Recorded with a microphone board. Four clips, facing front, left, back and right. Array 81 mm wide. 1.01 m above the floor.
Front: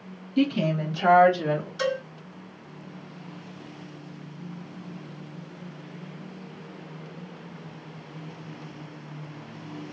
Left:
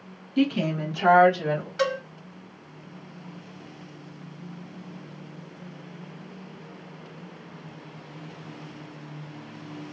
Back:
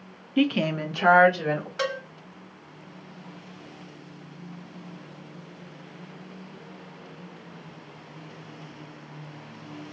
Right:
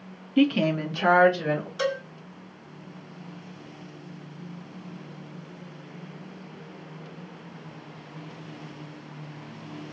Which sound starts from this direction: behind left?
A cowbell, at 1.8 s.